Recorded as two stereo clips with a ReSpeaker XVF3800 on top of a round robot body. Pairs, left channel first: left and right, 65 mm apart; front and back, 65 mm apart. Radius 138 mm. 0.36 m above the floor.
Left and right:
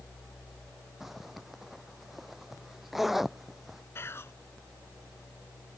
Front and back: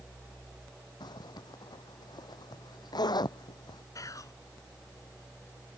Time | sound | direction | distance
1.0 | a zipper | 5° right | ?
4.0 | whispering | 35° left | ?